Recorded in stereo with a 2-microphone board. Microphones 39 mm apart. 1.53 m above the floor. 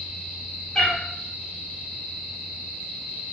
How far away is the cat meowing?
About 0.7 m.